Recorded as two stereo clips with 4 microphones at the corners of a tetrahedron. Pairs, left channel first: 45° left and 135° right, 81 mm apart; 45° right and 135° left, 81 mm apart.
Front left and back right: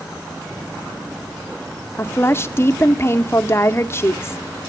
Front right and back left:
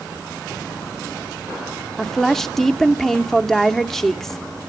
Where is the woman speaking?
35° left, 0.8 m.